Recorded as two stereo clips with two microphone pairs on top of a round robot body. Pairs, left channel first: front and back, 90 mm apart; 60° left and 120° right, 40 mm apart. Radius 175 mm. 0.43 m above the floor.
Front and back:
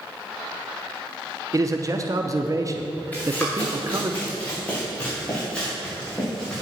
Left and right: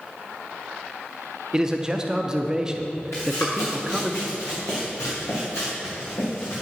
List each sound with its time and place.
1.5 s a man speaking: 175° left, 0.9 m
3.1 s running footsteps: 70° left, 3.5 m; by 6.6 s 80° left, 5.5 m